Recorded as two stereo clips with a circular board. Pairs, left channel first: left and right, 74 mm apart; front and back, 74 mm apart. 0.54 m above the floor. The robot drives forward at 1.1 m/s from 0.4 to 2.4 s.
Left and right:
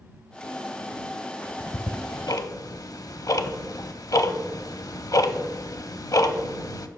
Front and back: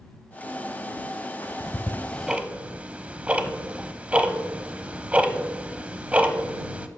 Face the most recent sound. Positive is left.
turn(degrees=110)